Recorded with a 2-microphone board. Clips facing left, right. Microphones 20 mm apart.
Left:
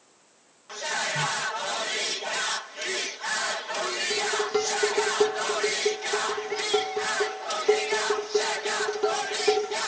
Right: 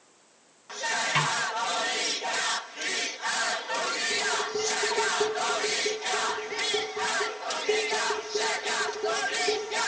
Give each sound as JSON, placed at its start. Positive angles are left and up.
{"t": 1.1, "sound": "a snare drum", "side_deg": -80, "distance_m": 5.5}
{"t": 4.1, "sound": "dishes clattering", "side_deg": 55, "distance_m": 5.0}